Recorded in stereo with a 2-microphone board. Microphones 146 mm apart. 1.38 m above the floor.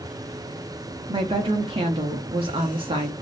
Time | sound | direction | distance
1.1 | a woman speaking | 40° right (ahead or behind) | 0.6 m